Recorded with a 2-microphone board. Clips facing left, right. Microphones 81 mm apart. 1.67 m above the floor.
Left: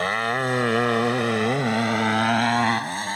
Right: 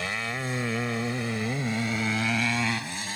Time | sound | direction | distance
0.0 | a motorcycle | 55° left (ahead or behind) | ?